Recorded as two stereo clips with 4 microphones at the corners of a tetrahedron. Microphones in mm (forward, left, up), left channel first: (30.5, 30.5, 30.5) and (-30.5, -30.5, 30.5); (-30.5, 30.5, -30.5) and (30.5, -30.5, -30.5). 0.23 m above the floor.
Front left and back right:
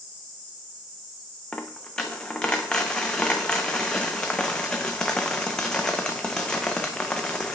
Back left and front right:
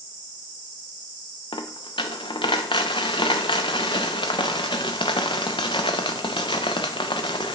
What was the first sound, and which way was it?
A dropped coin, 125° left.